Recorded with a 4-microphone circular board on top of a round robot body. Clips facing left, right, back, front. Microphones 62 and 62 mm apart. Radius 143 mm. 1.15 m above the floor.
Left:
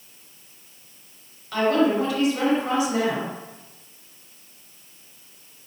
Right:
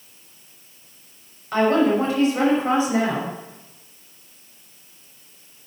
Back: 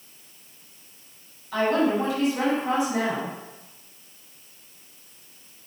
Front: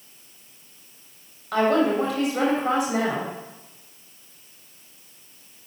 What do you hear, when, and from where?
1.5 s a woman speaking: 30° right, 6.5 m